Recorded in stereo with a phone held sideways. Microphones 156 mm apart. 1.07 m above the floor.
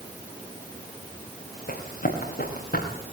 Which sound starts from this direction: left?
Running footsteps, at 1.7 s.